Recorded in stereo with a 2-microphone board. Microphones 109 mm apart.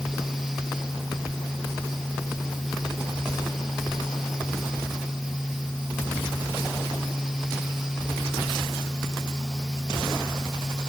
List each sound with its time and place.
Only background noise.